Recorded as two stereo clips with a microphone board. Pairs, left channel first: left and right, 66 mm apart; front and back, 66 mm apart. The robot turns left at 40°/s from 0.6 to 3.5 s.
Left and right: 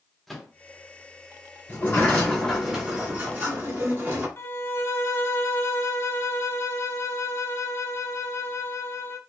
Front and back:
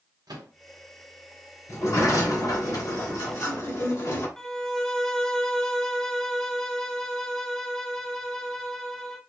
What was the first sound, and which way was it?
A microwave, 175° left.